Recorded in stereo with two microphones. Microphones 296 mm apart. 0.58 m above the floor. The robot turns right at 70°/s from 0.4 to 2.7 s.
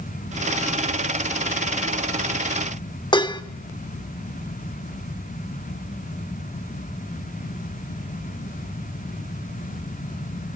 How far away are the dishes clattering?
About 1.0 m.